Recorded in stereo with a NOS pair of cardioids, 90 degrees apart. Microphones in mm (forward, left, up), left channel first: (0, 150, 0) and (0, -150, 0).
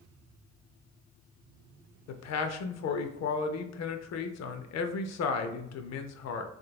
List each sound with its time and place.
2.1 s a man speaking: 60° left, 0.6 m